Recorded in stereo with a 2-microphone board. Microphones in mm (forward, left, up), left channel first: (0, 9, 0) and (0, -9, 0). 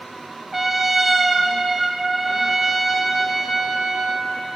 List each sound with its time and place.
0.5 s a trumpet: 10° right (ahead or behind), 0.9 m